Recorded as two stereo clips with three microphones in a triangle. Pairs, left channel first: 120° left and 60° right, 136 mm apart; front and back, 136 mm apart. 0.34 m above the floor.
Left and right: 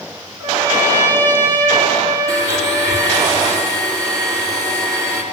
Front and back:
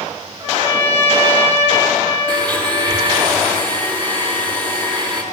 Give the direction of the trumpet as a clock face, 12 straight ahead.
4 o'clock.